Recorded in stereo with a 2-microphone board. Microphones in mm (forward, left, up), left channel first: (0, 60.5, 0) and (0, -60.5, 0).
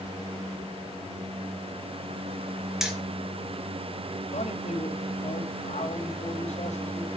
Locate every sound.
2.8 s hammering: 5° right (ahead or behind), 2.5 m
4.3 s a man speaking: 70° left (ahead or behind), 3 m